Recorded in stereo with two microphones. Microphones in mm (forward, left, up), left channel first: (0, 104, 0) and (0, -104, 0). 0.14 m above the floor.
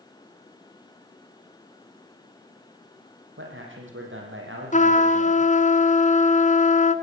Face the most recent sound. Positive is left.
turn(degrees=35)  # may be behind; listen again after turning